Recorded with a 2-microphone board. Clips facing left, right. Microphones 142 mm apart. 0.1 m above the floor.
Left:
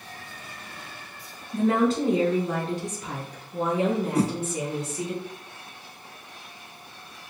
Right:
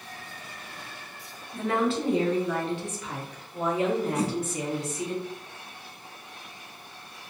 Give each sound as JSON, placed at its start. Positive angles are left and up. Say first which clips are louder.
{"t": 1.5, "sound": "a woman speaking", "louder": "left 4 dB", "side_deg": 40, "distance_m": 1.7}
{"t": 4.2, "sound": "a whoosh", "louder": "left 4 dB", "side_deg": 35, "distance_m": 0.7}